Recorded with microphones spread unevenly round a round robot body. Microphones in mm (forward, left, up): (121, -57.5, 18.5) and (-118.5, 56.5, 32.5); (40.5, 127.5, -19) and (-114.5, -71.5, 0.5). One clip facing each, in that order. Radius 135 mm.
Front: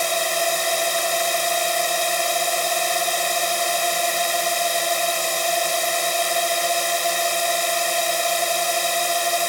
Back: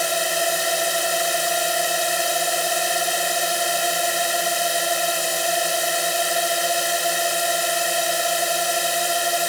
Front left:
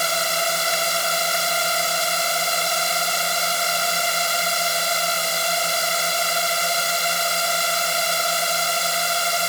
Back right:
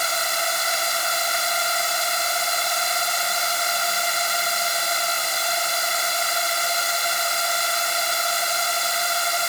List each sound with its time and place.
0.0 s a drone: 75° left